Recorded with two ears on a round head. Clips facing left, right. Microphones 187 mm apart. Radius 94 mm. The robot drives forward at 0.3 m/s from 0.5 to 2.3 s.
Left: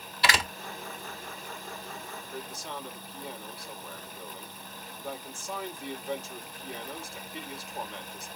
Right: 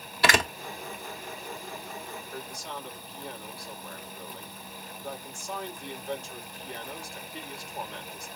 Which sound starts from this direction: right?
A door slam, at 0.2 s.